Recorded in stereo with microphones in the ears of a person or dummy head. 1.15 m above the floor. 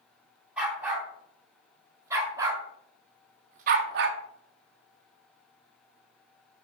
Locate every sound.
0.6 s a dog barking: 5° right (ahead or behind), 3.5 m; by 4.2 s 55° right (ahead or behind), 1.0 m